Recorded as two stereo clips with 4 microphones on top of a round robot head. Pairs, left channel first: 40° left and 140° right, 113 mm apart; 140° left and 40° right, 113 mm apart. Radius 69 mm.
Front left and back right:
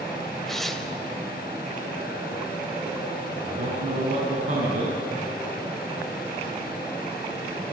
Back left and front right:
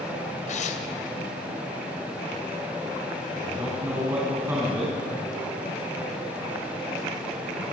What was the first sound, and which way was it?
Tearing paper, 130° left.